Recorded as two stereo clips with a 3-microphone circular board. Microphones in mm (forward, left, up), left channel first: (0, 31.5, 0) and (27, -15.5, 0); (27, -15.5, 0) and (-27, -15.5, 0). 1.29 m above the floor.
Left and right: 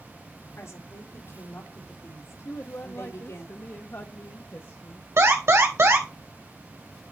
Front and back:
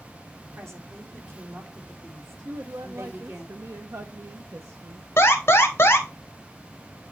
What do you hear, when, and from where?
0.6 s a woman speaking: 145° left, 2.5 m
2.5 s a man speaking: 160° left, 0.6 m
5.2 s an alarm: 40° right, 1.7 m